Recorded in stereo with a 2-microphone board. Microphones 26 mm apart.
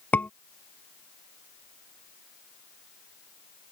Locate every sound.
0.1 s a scream: 85° left